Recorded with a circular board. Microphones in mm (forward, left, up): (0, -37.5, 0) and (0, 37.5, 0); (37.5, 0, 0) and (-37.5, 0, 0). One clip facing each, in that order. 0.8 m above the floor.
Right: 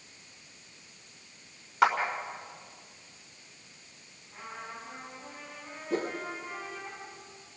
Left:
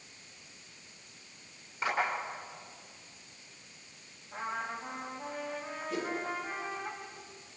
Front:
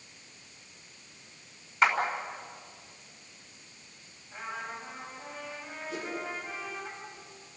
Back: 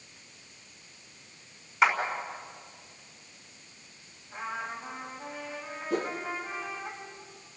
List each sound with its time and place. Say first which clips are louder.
1.8 s a clap: right 10 dB, back 1 dB; 90° right, 5 m
4.3 s a trumpet: left 6 dB, back 3 dB; 100° left, 6 m
5.9 s a whoosh: right 4 dB, back 7 dB; 135° right, 1.9 m